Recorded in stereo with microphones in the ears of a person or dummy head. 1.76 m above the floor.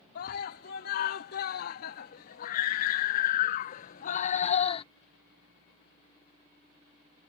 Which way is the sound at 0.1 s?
60° left (ahead or behind).